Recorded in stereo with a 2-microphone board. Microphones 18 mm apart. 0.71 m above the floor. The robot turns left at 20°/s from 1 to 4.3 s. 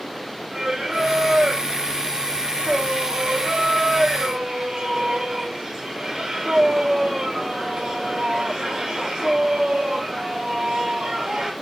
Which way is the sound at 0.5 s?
60° right.